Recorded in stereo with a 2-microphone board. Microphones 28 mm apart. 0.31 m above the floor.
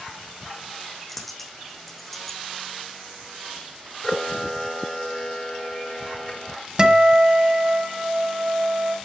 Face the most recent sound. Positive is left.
turn(degrees=-25)  # may be behind; listen again after turning